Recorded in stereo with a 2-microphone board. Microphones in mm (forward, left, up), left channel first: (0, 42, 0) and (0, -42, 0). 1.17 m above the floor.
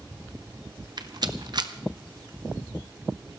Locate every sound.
1.0 s a rattle: 55° right (ahead or behind), 0.9 m